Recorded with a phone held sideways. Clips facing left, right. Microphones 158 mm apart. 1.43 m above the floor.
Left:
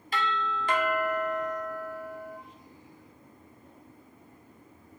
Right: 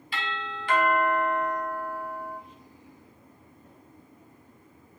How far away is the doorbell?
About 0.7 m.